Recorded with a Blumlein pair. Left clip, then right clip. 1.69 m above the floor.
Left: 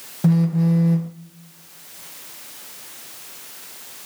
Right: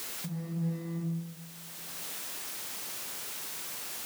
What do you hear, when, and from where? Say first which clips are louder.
0.2 s a phone buzzing: left 22 dB; 40° left, 1.0 m